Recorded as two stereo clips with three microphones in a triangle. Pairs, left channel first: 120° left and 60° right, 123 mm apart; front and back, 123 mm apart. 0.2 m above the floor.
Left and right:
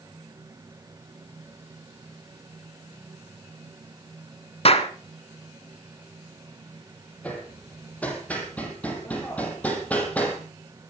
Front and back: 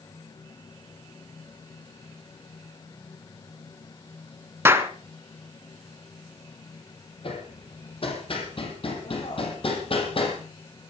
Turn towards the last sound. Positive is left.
turn(degrees=40)